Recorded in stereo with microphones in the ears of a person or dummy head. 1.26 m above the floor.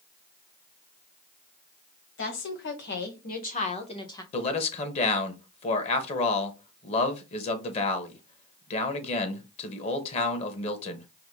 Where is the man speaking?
40° left (ahead or behind), 1.1 m.